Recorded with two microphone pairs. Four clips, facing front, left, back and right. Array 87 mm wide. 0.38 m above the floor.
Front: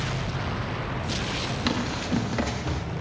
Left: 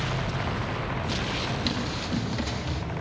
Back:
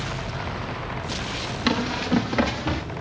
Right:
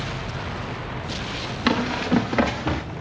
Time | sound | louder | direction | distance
1.7 | running footsteps | right 8 dB, back 6 dB | 100° right | 4.5 m